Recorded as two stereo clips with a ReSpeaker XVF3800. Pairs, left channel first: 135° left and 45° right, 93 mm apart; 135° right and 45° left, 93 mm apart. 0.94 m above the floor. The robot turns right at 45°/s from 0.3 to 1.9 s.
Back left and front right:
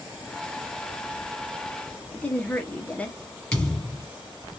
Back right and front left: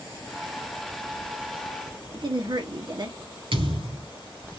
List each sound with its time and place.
2.1 s a woman speaking: 60° left, 1.0 m
3.5 s a thud: 50° left, 3.5 m